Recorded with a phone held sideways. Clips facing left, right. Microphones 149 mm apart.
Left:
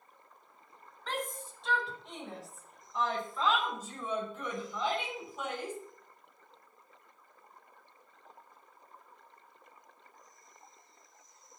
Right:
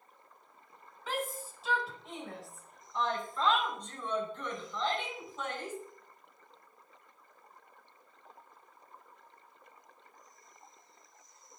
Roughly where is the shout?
Centre.